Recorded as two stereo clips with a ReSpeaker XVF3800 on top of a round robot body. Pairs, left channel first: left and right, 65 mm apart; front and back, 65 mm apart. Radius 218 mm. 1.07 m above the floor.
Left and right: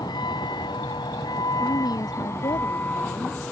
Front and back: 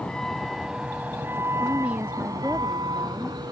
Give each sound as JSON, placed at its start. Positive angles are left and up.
{"t": 0.0, "sound": "a vehicle", "azimuth_deg": 75}
{"t": 1.6, "sound": "a woman speaking", "azimuth_deg": 110}